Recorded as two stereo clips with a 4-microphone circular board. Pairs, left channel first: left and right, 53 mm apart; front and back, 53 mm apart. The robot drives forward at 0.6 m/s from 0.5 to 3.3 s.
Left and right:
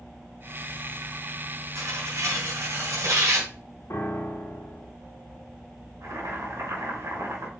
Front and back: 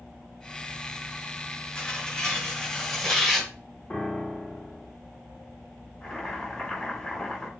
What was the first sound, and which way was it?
Tearing paper, 75° right.